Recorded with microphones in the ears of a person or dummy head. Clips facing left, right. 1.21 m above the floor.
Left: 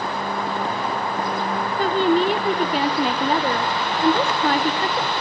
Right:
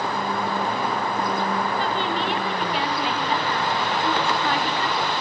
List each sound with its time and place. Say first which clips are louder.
1.8 s a woman speaking: left 7 dB; 35° left (ahead or behind), 0.8 m